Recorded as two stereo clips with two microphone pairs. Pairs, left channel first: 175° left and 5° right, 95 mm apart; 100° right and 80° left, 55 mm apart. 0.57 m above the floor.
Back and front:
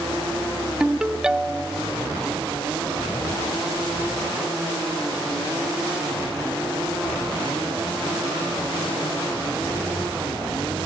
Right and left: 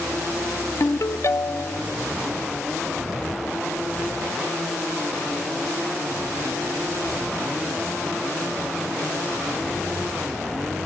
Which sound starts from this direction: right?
A ringtone, at 0.8 s.